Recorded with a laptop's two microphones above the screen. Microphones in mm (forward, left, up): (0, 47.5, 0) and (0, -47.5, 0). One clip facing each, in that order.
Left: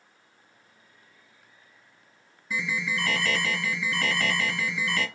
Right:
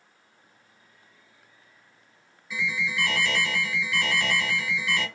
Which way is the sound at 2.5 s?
45° left (ahead or behind).